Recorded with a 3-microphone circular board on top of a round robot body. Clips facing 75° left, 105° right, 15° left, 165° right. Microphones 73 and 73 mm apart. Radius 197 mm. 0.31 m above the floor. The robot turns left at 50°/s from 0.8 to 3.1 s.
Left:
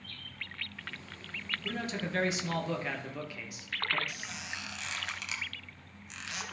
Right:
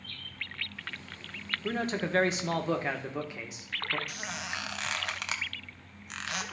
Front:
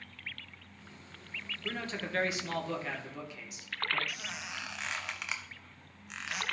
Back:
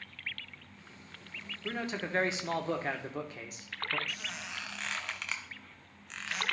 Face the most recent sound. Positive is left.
turn(degrees=-70)